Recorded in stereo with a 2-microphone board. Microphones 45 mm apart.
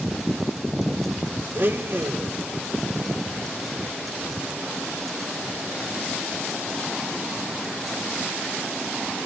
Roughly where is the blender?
Right.